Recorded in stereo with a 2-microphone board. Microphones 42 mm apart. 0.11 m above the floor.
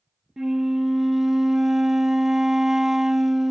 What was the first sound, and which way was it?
A flute, 10° right (ahead or behind).